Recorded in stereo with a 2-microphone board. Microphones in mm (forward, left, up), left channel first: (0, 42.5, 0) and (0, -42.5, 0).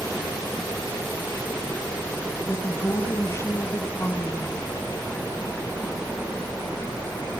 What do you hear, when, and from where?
2.5 s a woman speaking: 30° left (ahead or behind), 1.6 m